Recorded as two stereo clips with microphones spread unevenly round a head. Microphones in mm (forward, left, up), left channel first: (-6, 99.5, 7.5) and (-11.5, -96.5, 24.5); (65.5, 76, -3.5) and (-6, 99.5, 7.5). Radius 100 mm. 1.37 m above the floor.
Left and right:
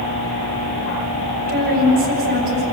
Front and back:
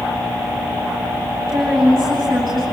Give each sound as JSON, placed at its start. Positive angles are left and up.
{"t": 1.5, "sound": "a woman speaking", "azimuth_deg": -135, "distance_m": 8.0}